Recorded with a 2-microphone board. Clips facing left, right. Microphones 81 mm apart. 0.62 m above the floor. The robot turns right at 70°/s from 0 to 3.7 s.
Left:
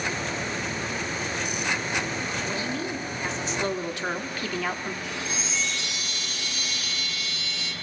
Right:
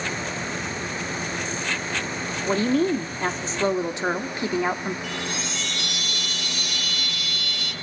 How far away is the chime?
About 2.5 m.